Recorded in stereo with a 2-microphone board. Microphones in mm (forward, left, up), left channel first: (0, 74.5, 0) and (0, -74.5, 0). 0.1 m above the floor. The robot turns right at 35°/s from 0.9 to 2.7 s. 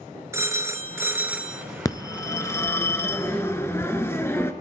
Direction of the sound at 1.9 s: 25° left (ahead or behind).